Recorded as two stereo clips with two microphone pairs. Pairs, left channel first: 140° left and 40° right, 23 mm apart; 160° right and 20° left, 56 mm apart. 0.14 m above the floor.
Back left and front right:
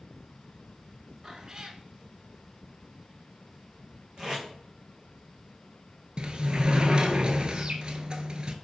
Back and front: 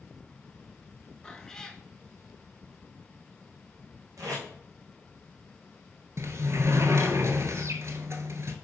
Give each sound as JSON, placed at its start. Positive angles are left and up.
{"t": 1.2, "sound": "a cat meowing", "azimuth_deg": -80, "distance_m": 0.6}
{"t": 4.2, "sound": "tape being pulled", "azimuth_deg": 5, "distance_m": 2.5}
{"t": 6.2, "sound": "a sliding door", "azimuth_deg": 0, "distance_m": 0.7}